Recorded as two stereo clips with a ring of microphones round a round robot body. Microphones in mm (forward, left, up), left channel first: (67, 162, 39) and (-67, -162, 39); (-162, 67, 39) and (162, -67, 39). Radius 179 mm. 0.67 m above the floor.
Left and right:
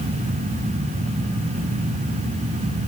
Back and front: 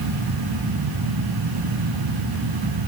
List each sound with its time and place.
Only background noise.